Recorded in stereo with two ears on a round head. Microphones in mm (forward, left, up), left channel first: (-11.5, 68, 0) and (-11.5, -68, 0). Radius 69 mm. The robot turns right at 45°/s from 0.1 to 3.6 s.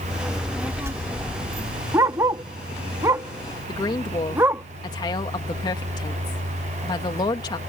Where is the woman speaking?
30° left (ahead or behind).